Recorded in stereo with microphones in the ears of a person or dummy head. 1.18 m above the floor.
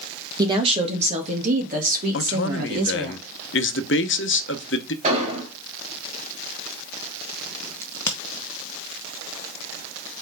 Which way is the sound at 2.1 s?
60° left (ahead or behind).